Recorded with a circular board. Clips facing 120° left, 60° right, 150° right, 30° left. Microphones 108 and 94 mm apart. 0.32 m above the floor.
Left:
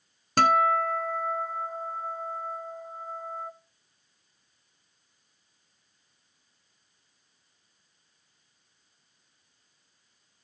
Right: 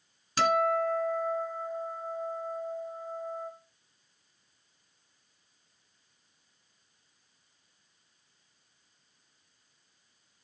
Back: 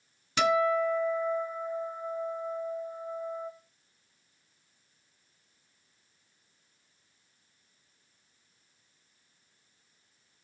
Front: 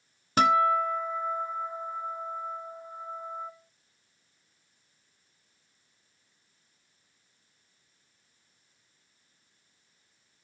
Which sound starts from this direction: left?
A guitar, at 0.4 s.